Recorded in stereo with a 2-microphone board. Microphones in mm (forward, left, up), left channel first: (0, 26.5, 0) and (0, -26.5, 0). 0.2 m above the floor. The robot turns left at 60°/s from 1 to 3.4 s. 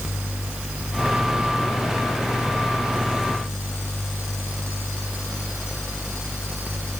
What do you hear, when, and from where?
Only background noise.